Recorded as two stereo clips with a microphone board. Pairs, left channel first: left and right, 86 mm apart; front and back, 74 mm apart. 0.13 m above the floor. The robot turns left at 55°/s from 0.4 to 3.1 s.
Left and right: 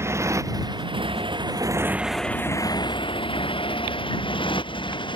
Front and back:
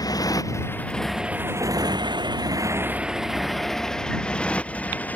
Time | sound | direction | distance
0.0 | a motorcycle | 30° right | ?